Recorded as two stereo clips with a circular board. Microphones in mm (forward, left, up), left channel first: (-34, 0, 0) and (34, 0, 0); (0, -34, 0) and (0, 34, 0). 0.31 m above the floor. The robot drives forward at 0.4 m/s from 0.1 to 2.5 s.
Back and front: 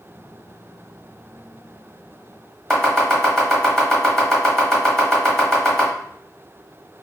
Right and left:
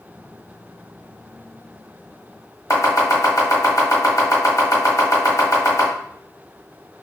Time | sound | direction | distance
2.7 | chopping | 100° right | 1.0 m